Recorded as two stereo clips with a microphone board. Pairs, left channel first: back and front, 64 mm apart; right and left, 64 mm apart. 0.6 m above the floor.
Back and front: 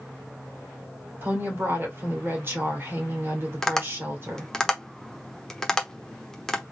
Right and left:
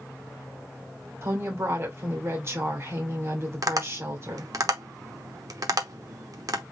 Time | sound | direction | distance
1.2 | a woman speaking | 50° left | 2.5 m
3.6 | tapping | 100° left | 0.9 m